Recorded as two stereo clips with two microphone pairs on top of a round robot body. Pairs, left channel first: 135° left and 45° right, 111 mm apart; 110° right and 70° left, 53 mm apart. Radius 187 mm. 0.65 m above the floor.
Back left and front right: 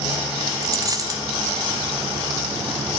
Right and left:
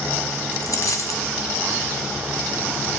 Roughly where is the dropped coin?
Right.